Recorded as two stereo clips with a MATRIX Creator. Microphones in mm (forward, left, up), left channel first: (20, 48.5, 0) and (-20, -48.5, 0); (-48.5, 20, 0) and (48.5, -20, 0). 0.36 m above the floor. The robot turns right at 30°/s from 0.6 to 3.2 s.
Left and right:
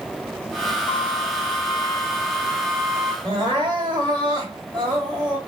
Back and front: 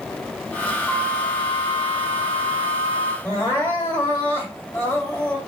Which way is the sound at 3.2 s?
145° right.